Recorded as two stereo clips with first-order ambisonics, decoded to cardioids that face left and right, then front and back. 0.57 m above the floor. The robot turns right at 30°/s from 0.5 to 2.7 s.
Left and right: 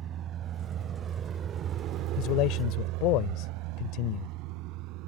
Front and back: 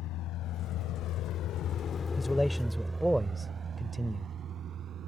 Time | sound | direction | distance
0.0 | a vehicle | 35° right | ?
2.2 | a man speaking | 75° left | ?